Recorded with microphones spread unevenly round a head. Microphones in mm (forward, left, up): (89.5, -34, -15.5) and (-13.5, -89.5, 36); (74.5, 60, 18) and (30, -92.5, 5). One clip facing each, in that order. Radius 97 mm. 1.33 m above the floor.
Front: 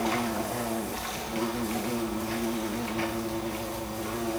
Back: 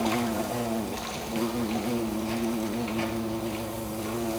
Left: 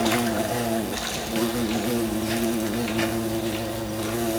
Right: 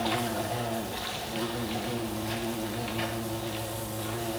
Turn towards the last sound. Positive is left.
turn(degrees=125)